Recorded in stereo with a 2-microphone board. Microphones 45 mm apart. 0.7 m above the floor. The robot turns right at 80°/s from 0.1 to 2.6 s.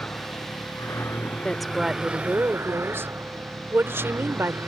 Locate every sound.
0.0 s a vehicle: 40° left (ahead or behind); by 4.7 s 60° right (ahead or behind)
1.4 s a woman speaking: 165° left; by 4.6 s 105° right